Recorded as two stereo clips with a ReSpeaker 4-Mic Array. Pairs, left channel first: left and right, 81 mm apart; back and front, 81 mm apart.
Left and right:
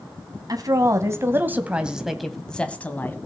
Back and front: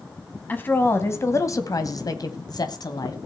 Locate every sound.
0.5 s a woman speaking: 120° right, 2.5 m; by 3.2 s 155° left, 2.5 m